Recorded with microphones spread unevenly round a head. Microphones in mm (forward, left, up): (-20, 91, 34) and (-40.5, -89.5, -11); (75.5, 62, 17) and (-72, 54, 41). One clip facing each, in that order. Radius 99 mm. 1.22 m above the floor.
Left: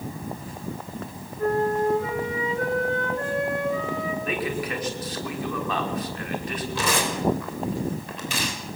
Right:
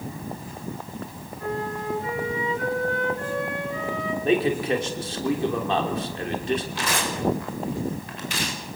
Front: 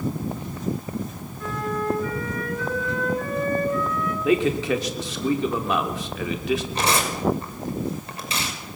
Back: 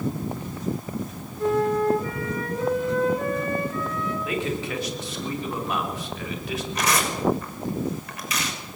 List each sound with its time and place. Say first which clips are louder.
1.4 s a flute: left 8 dB, back 7 dB; 125° left, 6.5 m
4.2 s a man speaking: right 7 dB, front 12 dB; 30° right, 3 m
6.8 s tearing paper: left 2 dB, front 1 dB; 65° left, 6 m